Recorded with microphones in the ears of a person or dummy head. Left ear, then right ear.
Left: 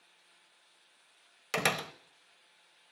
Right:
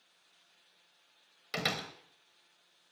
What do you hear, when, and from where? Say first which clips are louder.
1.5 s a door slam: left 4 dB; 35° left (ahead or behind), 1.0 m